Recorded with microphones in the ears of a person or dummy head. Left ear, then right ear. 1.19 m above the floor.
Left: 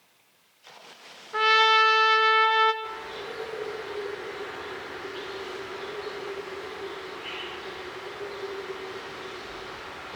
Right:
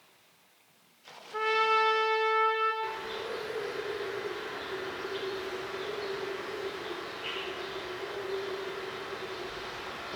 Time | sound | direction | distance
1.3 | a trumpet | 45° left (ahead or behind) | 0.7 m
2.8 | a bird | 30° right (ahead or behind) | 5 m